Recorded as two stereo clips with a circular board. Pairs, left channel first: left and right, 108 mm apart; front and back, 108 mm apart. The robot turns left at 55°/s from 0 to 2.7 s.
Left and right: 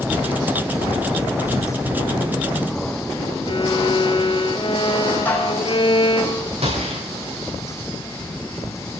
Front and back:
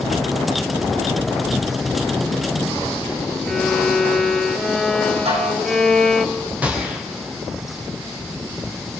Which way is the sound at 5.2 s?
160° left.